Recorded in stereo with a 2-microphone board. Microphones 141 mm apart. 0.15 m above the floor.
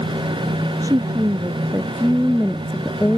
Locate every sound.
0.8 s a woman speaking: 25° right (ahead or behind); by 3.2 s 15° left (ahead or behind)